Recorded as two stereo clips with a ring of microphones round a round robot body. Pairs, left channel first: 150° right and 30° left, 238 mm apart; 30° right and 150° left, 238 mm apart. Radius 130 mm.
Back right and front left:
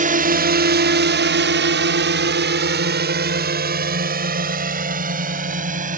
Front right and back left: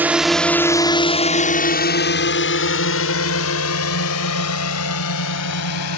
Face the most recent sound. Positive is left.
turn(degrees=-25)